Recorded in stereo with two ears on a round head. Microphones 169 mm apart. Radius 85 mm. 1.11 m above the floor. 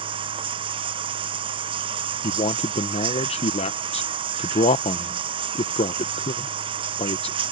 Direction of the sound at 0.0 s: 25° right (ahead or behind).